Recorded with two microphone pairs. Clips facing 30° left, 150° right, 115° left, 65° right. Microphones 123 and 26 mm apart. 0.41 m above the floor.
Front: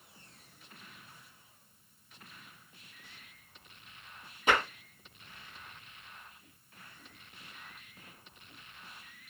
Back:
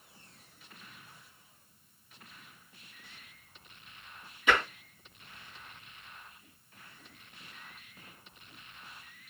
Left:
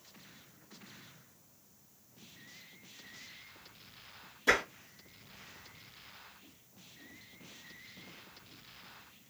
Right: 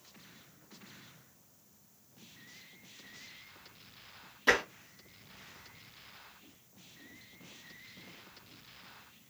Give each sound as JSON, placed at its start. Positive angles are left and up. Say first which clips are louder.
{"t": 4.5, "sound": "tapping", "louder": "even, right 1 dB", "azimuth_deg": -20, "distance_m": 2.0}